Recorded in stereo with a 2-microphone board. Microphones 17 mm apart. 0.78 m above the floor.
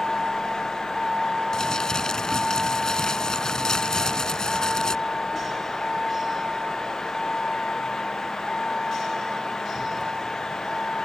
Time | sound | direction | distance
0.0 | a vehicle | 15° right (ahead or behind) | ?
1.5 | crumpling | 40° left (ahead or behind) | ?